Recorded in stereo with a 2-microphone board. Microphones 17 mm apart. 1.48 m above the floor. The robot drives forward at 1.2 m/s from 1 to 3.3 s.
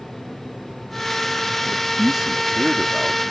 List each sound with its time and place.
1.6 s a man speaking: 30° right (ahead or behind); by 3.3 s 20° right (ahead or behind)